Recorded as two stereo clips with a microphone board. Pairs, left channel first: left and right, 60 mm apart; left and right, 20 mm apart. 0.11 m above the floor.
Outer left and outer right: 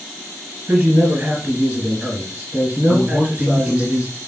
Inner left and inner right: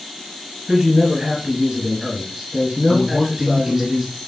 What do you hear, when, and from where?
0.7 s a man speaking: 20° right (ahead or behind), 1.3 m
2.9 s a man speaking: 20° right (ahead or behind), 1.2 m